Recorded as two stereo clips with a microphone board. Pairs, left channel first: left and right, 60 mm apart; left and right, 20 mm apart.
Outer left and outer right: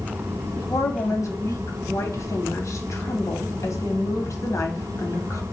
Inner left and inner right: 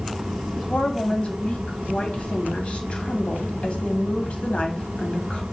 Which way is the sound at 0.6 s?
60° left (ahead or behind).